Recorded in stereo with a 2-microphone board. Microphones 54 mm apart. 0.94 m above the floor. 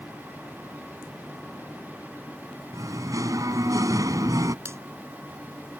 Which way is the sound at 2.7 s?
90° right.